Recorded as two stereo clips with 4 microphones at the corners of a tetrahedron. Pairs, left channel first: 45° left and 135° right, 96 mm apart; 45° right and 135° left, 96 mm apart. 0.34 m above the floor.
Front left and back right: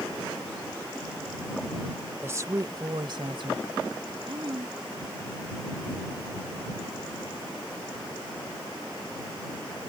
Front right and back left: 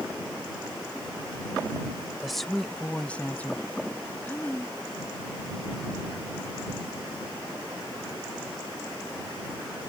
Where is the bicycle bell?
No bicycle bell in this recording.